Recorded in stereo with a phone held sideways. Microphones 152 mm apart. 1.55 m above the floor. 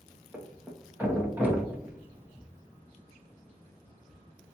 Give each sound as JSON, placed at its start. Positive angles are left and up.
{"t": 0.3, "sound": "a thud", "side_deg": -10, "distance_m": 0.9}